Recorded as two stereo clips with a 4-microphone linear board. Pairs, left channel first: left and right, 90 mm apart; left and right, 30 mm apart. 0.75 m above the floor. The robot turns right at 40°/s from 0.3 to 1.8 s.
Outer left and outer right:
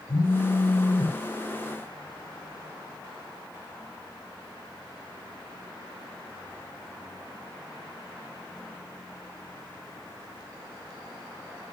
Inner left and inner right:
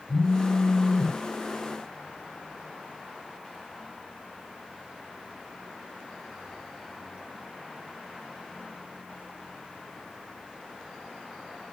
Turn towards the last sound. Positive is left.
turn(degrees=-170)